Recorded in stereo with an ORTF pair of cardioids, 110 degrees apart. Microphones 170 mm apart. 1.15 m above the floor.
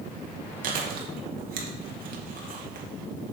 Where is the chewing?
55° right, 1.7 m.